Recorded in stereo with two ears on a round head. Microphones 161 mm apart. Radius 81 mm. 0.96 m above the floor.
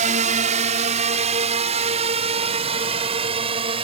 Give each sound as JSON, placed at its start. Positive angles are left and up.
{"t": 0.0, "sound": "a drone", "side_deg": -45}